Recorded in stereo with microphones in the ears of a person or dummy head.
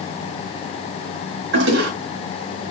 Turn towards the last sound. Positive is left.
turn(degrees=-70)  # may be behind; listen again after turning